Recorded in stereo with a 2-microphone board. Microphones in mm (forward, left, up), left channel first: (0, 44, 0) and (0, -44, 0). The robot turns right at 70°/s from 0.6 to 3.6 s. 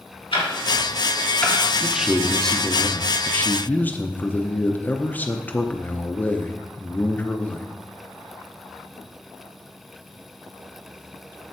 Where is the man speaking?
10° right (ahead or behind), 0.6 m; by 7.7 s 20° left (ahead or behind), 0.6 m.